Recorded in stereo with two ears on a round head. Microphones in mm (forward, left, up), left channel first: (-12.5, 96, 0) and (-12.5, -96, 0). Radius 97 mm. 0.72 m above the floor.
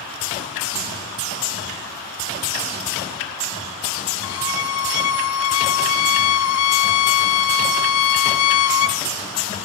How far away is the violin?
About 2 m.